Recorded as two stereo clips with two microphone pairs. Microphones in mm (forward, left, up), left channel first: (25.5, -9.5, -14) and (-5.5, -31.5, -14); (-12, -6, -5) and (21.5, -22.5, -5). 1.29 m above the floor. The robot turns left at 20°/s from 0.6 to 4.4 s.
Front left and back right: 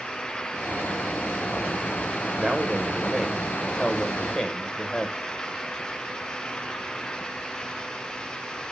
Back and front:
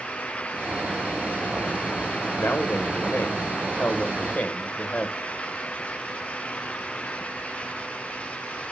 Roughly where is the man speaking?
Behind left.